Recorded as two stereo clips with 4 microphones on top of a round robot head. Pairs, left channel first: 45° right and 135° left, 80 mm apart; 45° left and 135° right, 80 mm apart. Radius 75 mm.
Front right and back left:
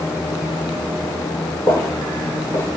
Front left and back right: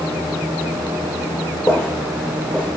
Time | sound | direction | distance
1.7 | footsteps | 5° left | 0.9 m